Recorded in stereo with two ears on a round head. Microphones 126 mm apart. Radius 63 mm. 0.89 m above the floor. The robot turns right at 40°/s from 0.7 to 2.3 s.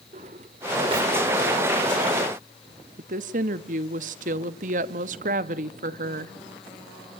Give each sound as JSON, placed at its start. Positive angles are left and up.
{"t": 0.1, "sound": "a drawer", "side_deg": -50, "distance_m": 1.3}
{"t": 3.0, "sound": "a woman speaking", "side_deg": -60, "distance_m": 1.4}